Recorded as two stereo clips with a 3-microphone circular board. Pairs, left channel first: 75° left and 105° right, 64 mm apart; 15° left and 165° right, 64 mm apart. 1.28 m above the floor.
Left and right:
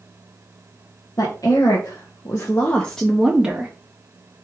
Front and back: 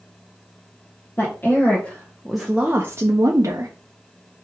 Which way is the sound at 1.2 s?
70° left.